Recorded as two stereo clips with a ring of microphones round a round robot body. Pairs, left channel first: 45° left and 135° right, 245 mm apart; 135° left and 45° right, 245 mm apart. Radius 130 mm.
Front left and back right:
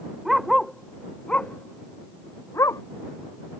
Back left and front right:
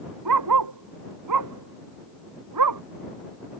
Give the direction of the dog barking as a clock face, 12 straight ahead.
2 o'clock.